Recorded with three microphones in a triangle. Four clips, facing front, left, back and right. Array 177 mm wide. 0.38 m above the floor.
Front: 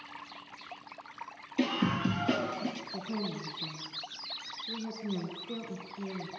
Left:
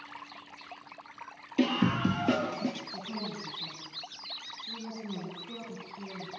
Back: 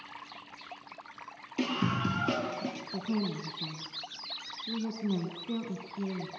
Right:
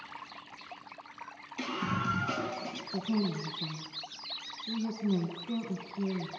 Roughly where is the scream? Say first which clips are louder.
Left 7 dB, front 1 dB; left.